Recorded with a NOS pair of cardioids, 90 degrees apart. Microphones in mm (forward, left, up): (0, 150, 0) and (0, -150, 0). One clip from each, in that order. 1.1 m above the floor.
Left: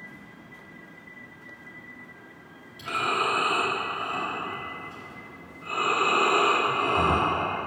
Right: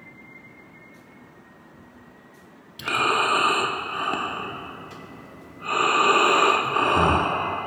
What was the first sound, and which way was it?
Breathing, 55° right.